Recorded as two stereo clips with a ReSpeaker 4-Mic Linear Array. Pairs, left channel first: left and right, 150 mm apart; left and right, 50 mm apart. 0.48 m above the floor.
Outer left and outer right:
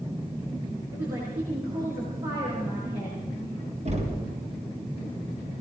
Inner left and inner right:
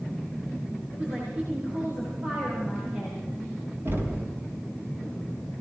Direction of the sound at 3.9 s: 45° right (ahead or behind).